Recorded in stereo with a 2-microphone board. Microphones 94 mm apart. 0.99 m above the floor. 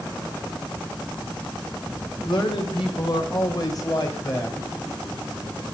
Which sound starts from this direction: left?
A man speaking, at 2.2 s.